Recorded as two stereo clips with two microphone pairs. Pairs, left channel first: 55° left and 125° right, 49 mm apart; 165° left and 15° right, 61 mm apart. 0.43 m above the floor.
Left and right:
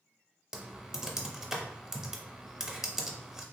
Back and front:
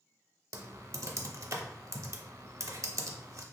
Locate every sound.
0.5 s typing on a keyboard: 50° right, 0.5 m